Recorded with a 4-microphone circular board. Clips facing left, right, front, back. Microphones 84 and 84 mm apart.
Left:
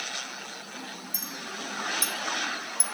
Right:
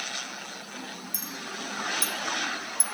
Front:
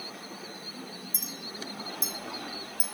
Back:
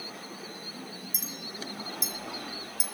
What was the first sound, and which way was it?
A clink, 55° right.